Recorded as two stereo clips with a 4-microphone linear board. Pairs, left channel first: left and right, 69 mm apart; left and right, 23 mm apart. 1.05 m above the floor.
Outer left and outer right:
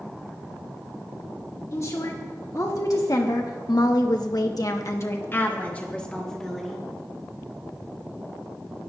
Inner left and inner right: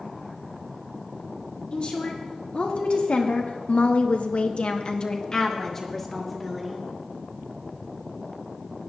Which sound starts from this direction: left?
A woman speaking, at 1.7 s.